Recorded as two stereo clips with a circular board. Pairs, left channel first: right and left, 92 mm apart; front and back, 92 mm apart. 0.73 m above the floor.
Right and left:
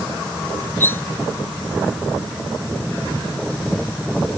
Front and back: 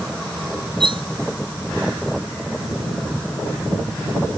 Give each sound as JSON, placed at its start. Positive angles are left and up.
{"t": 0.8, "sound": "cutlery clinking", "azimuth_deg": -155}